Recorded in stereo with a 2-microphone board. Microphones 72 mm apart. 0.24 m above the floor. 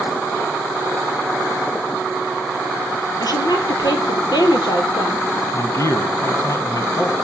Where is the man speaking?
45° left (ahead or behind), 2.0 m.